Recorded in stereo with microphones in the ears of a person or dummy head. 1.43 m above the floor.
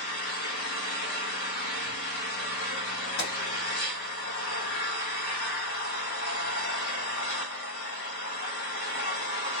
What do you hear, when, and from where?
0.0 s an engine running: 60° left (ahead or behind), 1.4 m
3.2 s a gunshot: 80° left, 3 m